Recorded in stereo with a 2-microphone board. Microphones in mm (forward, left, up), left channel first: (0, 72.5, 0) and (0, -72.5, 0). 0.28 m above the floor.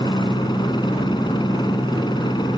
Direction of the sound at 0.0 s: 30° left (ahead or behind).